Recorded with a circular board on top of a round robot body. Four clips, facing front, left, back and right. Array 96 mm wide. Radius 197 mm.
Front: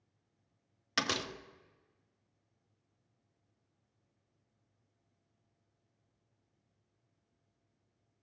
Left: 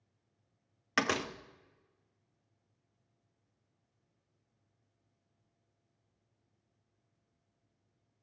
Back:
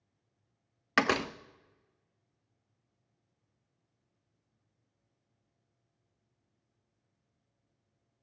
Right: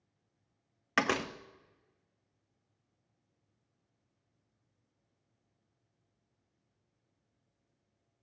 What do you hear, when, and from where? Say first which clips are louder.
1.0 s a door slam: right 1 dB, back 8 dB; 170° right, 0.7 m